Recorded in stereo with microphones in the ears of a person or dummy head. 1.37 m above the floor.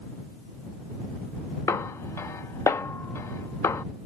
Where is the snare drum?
20° left (ahead or behind).